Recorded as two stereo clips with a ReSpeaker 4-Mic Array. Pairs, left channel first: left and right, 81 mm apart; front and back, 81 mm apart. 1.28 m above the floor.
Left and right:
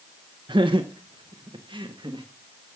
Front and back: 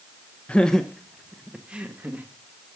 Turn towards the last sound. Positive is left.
turn(degrees=-110)